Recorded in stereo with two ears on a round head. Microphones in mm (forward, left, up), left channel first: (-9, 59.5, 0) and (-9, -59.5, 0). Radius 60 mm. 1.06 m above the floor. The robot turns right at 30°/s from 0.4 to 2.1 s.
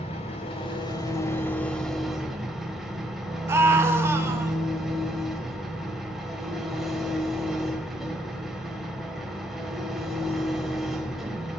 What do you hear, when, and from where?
0.0 s an engine running: 130° left, 2.5 m; by 11.6 s straight behind, 2.5 m
3.5 s a scream: 20° right (ahead or behind), 1.7 m